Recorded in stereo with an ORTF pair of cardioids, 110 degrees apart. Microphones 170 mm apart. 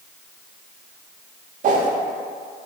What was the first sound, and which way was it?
A whoosh, 50° right.